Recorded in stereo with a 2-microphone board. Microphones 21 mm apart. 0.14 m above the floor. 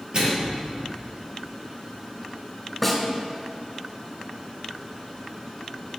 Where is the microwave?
50° right (ahead or behind), 2.5 m.